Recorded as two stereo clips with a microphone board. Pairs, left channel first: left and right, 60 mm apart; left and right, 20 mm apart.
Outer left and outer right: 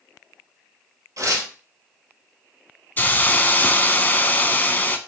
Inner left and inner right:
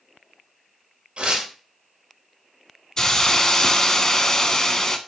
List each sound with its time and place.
1.2 s tearing paper: 60° right (ahead or behind), 1.8 m
3.0 s a hiss: 30° left (ahead or behind), 0.5 m